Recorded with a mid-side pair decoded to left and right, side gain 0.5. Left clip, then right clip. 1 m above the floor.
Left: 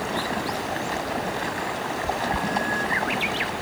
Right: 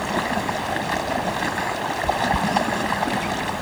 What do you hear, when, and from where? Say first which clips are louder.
0.0 s running water: right 3 dB; 35° right